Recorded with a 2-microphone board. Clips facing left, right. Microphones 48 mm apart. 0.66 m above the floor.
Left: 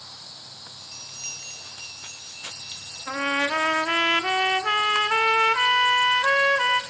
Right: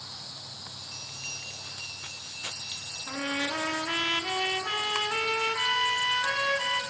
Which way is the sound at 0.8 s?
10° right (ahead or behind).